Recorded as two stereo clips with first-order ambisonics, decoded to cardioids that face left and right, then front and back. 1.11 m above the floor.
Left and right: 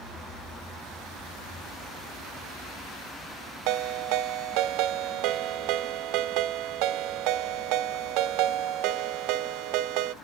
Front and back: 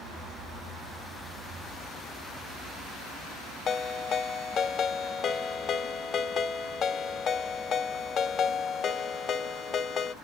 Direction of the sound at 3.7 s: 65° right.